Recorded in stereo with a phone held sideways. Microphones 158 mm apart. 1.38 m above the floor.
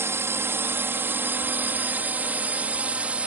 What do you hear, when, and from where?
0.0 s a drone: 15° right (ahead or behind); by 3.3 s 10° right (ahead or behind)